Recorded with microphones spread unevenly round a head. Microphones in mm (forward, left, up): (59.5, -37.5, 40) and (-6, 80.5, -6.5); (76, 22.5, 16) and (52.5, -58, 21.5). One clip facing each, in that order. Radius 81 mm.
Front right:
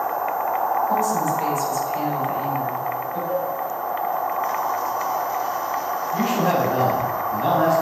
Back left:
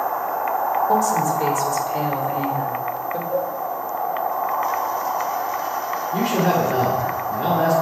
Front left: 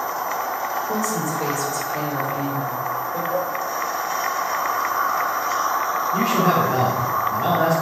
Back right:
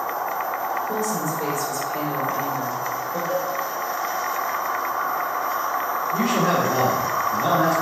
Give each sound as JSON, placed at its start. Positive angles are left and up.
{"t": 0.9, "sound": "a woman speaking", "azimuth_deg": 165, "distance_m": 3.5}
{"t": 3.3, "sound": "a cowbell", "azimuth_deg": -120, "distance_m": 4.0}
{"t": 6.1, "sound": "a man speaking", "azimuth_deg": 170, "distance_m": 4.0}